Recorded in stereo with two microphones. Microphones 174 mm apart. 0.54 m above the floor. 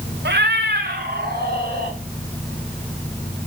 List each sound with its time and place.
0.2 s a cat meowing: 80° right, 0.8 m; by 1.9 s 60° right (ahead or behind), 3.5 m